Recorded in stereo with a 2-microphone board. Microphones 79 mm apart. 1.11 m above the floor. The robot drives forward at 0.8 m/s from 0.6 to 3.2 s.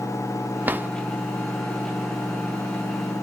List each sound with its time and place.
0.7 s a drawer: 25° right (ahead or behind), 0.7 m